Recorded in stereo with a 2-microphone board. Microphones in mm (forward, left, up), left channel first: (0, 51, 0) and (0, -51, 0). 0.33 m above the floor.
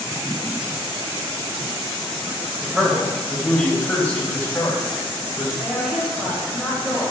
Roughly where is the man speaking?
Centre.